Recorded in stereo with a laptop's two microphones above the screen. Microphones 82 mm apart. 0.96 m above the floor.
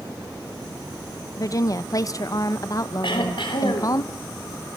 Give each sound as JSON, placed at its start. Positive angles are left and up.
{"t": 1.4, "sound": "a woman speaking", "side_deg": 45, "distance_m": 0.8}
{"t": 3.0, "sound": "throat clearing", "side_deg": 80, "distance_m": 3.5}